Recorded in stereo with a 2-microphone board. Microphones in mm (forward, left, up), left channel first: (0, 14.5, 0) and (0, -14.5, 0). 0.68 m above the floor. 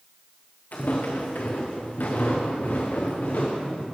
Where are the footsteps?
70° left (ahead or behind), 2 m; by 3.8 s 60° left (ahead or behind), 3.5 m.